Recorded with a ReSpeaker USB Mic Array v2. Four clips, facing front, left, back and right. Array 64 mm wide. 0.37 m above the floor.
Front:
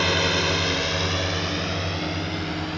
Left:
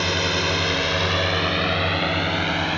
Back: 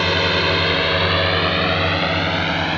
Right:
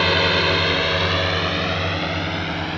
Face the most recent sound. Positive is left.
turn(degrees=160)